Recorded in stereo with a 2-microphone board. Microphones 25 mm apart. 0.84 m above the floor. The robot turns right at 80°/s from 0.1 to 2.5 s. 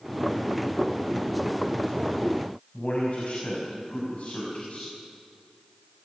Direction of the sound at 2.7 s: 50° left (ahead or behind).